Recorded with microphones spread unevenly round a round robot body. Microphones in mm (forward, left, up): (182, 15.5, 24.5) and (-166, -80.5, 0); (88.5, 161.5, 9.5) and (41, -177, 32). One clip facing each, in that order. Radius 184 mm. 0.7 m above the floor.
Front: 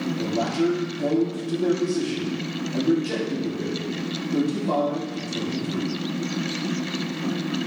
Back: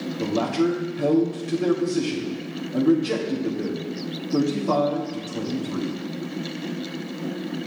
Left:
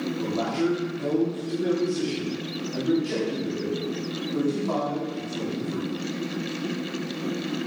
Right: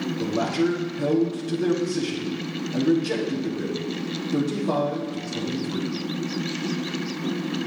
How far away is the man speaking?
About 1.9 m.